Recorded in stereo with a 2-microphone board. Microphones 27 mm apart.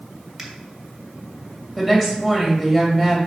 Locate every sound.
0.4 s a finger snap: centre (ahead or behind), 2.0 m
1.8 s a woman speaking: 10° left (ahead or behind), 2.5 m